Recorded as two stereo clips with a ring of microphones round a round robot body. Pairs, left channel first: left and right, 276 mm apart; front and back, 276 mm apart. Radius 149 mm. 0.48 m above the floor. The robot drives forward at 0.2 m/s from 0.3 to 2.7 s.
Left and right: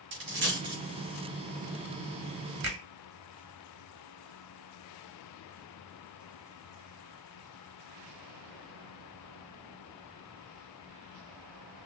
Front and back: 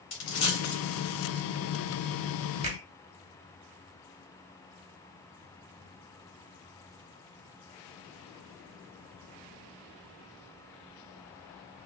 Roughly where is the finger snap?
Behind right.